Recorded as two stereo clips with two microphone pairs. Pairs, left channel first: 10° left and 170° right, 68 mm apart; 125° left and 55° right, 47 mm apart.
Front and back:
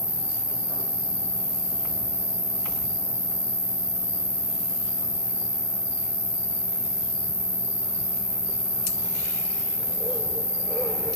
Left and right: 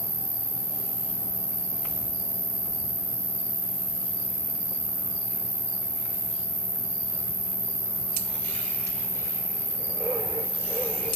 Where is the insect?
80° left, 2 m.